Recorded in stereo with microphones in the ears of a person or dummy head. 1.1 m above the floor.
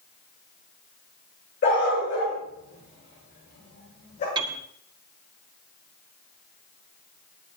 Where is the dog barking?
60° left (ahead or behind), 8 m; by 4.2 s 50° left (ahead or behind), 8.5 m.